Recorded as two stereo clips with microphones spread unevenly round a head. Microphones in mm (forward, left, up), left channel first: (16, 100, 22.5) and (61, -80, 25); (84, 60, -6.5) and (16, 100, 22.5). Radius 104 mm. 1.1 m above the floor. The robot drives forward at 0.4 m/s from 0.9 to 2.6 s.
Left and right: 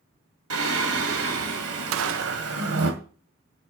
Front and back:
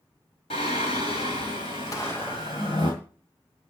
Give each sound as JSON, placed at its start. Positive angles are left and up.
{"t": 0.5, "sound": "singing", "azimuth_deg": -80, "distance_m": 2.5}
{"t": 1.9, "sound": "a gunshot", "azimuth_deg": -95, "distance_m": 0.5}